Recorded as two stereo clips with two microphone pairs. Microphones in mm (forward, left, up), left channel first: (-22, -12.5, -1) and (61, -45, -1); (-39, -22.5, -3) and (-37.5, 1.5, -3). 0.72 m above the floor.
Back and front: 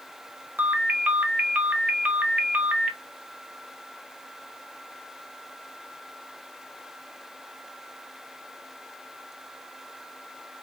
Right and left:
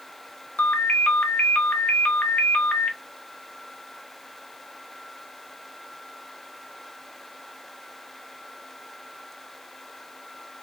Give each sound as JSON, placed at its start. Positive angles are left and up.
{"t": 0.6, "sound": "a ringtone", "azimuth_deg": -90, "distance_m": 0.5}